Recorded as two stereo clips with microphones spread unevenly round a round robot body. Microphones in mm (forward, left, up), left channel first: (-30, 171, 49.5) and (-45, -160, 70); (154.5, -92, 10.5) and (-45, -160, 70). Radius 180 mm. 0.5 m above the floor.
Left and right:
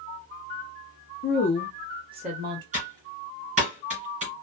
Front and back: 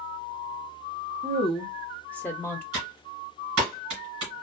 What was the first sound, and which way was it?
A woman speaking, 90° left.